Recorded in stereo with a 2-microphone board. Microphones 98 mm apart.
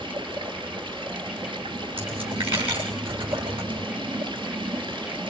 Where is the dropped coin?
65° right (ahead or behind), 9 m.